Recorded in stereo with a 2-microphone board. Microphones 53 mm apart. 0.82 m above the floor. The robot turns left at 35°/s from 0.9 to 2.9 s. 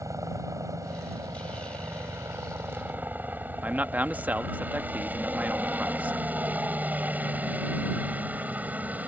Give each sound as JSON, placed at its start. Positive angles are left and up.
{"t": 0.0, "sound": "a helicopter", "side_deg": -65}
{"t": 3.6, "sound": "a man speaking", "side_deg": -30}